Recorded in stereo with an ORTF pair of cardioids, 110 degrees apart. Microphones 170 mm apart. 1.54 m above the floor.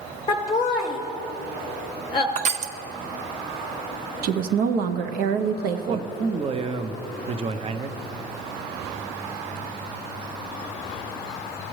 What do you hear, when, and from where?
0.3 s laughter: 30° left, 0.7 m
2.4 s crushing: 40° right, 0.5 m
4.2 s a woman speaking: 65° right, 0.8 m
5.8 s a man speaking: 35° right, 0.6 m